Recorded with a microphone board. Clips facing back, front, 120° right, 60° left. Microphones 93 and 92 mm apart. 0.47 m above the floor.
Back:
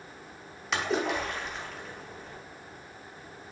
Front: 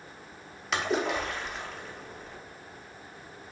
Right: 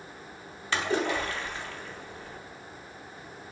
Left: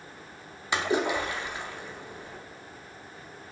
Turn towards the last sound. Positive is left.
turn(degrees=90)